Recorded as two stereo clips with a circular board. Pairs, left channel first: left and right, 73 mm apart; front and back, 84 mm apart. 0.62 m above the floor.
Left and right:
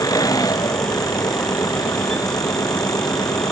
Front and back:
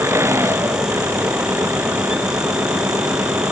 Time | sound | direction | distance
0.0 | an engine running | 125° left | ?